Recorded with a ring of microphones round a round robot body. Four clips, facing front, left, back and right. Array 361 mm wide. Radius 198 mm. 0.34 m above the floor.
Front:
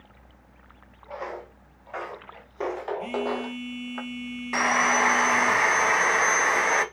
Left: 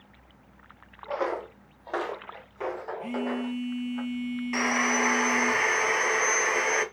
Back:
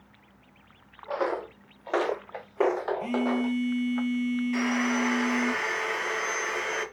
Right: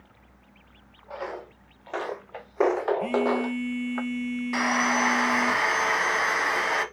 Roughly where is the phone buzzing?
Right.